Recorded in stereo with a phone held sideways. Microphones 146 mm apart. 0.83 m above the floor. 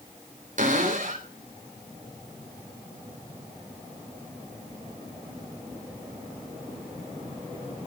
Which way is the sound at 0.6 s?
60° right (ahead or behind).